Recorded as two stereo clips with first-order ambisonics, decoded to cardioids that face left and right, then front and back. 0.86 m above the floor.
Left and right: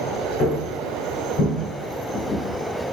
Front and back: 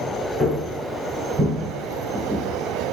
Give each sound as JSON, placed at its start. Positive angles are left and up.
{"t": 0.4, "sound": "footsteps", "azimuth_deg": 95, "distance_m": 0.9}